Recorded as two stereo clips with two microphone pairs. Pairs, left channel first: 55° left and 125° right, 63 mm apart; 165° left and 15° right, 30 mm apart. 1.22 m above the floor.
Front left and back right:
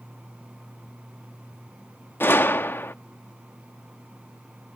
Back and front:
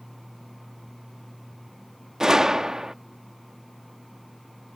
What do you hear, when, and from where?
2.2 s a gunshot: 40° left